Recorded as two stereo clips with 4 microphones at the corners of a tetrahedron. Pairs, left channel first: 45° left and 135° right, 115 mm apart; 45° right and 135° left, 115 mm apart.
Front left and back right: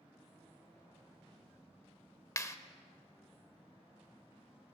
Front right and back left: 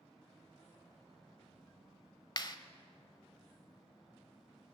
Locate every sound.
2.4 s a clap: 15° right, 1.0 m